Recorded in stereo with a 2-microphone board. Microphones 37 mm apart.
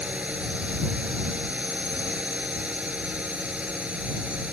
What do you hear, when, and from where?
0.0 s a drone: 40° right (ahead or behind)